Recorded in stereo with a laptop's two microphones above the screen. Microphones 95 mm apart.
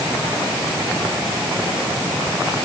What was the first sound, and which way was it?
Only background noise.